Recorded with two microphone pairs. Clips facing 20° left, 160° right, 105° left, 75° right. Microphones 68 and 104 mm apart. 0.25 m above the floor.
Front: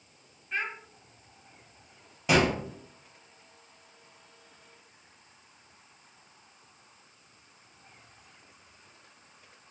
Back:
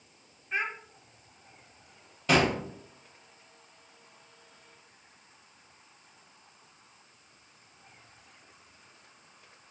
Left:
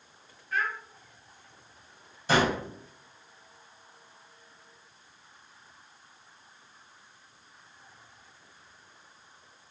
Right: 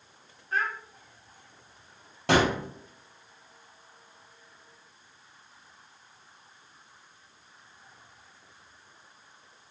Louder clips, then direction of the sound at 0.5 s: Back 1 dB, right 1 dB; 100° right.